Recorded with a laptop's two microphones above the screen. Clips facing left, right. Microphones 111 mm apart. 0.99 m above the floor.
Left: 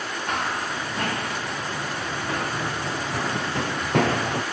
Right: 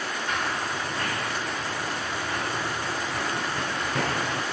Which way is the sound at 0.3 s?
65° left (ahead or behind).